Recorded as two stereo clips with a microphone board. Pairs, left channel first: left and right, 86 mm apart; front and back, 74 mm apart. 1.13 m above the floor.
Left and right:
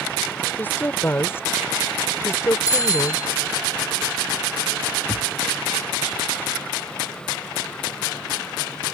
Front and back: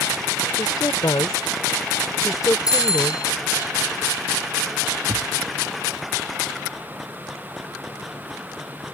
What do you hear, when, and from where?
0.6 s a woman speaking: 20° left; by 3.7 s 40° left
2.7 s a bicycle bell: 20° right
5.1 s a thud: 145° left